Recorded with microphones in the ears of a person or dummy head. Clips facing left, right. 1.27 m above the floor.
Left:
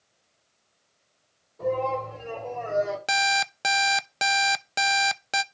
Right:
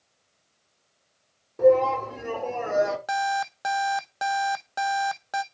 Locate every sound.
1.6 s a shout: 80° right, 5.5 m
3.1 s an alarm clock: 40° left (ahead or behind), 0.6 m